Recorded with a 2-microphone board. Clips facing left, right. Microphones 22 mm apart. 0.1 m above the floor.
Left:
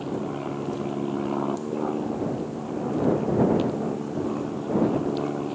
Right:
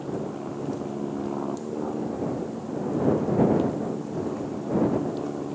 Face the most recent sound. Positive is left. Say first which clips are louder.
# left 2 dB
turn(degrees=40)  # may be behind; listen again after turning